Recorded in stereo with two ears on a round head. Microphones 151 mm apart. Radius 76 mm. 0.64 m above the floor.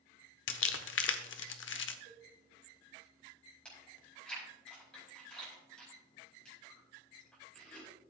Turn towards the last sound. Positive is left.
turn(degrees=5)  # may be behind; listen again after turning